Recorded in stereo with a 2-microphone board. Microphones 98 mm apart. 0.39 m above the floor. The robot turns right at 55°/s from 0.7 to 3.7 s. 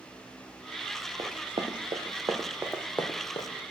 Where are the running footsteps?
55° right (ahead or behind), 1.3 m; by 3.5 s 55° left (ahead or behind), 1.5 m.